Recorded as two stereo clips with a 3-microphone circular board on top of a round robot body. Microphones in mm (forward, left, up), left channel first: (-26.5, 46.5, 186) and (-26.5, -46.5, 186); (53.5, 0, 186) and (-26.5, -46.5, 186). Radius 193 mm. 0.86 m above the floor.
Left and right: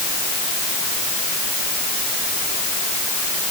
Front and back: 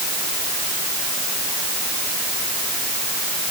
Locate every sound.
Only background noise.